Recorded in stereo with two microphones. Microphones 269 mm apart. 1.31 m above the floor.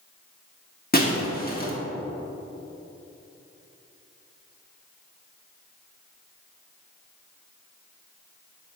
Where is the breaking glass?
35° left (ahead or behind), 1.1 m.